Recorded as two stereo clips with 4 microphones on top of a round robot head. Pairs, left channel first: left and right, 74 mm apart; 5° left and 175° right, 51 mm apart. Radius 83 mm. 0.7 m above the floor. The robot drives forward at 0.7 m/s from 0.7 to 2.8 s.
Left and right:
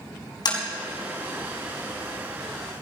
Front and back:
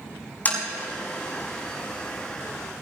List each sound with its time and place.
0.5 s tapping: 65° left, 5 m